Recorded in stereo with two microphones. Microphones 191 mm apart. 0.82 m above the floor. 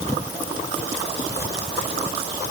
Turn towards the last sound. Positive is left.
No sound to turn to.